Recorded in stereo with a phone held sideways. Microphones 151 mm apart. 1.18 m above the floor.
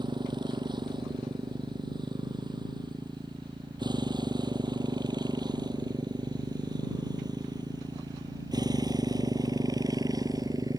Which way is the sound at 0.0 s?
30° right (ahead or behind).